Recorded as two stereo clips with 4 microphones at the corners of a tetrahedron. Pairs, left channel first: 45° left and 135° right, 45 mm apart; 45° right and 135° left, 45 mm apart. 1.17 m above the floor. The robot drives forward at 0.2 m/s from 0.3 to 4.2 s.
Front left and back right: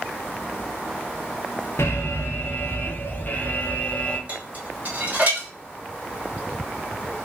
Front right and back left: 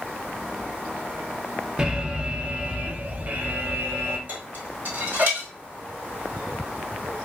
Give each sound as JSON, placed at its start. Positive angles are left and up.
{"t": 1.8, "sound": "an alarm", "azimuth_deg": 65, "distance_m": 0.7}
{"t": 4.3, "sound": "dishes clattering", "azimuth_deg": 175, "distance_m": 1.2}